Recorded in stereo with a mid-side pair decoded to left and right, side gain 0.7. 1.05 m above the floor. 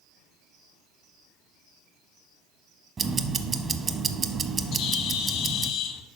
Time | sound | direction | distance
3.0 | ticking | 25° right | 0.7 m
4.7 | a bird | 60° left | 0.7 m